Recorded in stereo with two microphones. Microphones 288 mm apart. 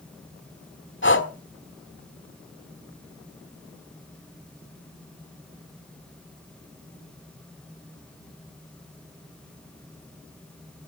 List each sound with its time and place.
1.0 s breathing: 40° left (ahead or behind), 1.3 m